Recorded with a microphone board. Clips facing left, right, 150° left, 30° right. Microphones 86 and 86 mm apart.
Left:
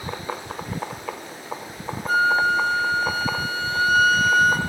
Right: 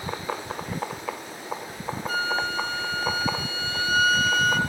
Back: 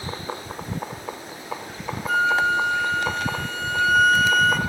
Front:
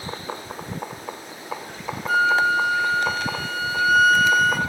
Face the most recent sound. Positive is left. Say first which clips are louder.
# left 9 dB, front 1 dB
turn(degrees=55)